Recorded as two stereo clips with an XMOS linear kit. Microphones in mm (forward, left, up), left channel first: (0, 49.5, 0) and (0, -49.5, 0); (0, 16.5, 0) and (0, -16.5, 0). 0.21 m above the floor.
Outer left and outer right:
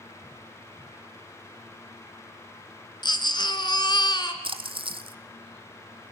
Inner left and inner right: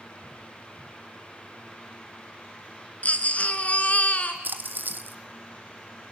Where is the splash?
55° right (ahead or behind), 1.3 m.